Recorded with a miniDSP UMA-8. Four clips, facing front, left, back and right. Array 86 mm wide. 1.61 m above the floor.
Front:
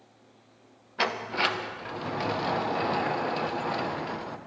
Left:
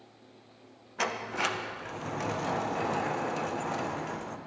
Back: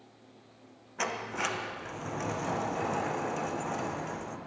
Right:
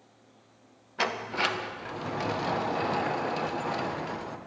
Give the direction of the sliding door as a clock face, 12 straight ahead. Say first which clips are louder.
Right 2 dB, front 5 dB; 1 o'clock.